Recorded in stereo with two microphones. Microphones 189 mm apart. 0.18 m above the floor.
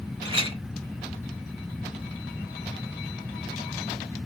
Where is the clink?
30° right (ahead or behind), 0.7 m.